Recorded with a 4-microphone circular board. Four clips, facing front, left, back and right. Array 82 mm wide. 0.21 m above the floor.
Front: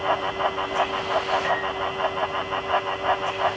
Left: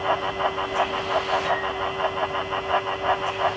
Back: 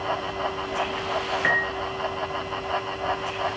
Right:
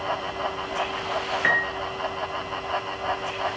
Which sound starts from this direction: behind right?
A piano, at 1.4 s.